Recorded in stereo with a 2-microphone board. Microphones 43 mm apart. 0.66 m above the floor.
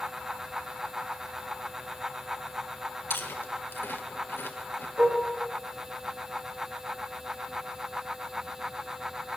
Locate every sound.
3.1 s chewing: 60° left (ahead or behind), 1.3 m
5.0 s dishes clattering: 55° right (ahead or behind), 5.5 m